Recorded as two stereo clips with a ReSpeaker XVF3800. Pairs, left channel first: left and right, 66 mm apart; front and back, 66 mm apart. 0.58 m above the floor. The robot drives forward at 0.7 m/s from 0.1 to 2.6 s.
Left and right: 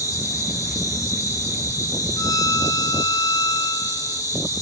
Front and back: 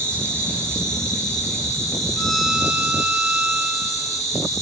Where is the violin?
75° left, 0.5 m; by 4.2 s 105° left, 0.5 m.